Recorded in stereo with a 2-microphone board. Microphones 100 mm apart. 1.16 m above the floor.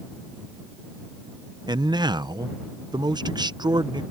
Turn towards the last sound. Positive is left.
turn(degrees=-45)  # may be behind; listen again after turning